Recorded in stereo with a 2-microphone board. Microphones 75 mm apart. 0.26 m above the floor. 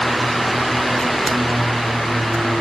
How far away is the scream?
I don't hear a scream.